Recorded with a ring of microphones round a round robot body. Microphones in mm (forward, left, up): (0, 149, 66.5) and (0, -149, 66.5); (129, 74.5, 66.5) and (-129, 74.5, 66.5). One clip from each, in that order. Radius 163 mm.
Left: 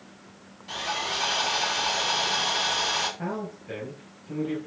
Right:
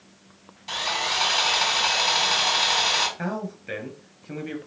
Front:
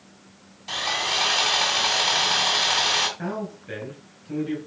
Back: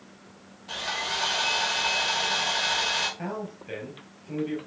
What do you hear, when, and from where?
0.7 s sawing: 40° right, 3 m
3.2 s a man speaking: 105° right, 4 m